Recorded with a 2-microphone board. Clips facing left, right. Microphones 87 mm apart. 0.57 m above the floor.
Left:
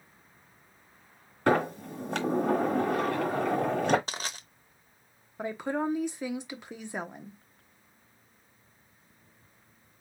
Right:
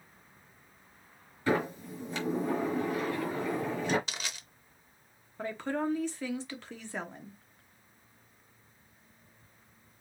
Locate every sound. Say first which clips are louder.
1.5 s a sliding door: left 4 dB; 65° left (ahead or behind), 1.1 m
4.1 s crushing: left 4 dB; 40° left (ahead or behind), 0.8 m
5.4 s a woman speaking: left 2 dB; 15° left (ahead or behind), 0.8 m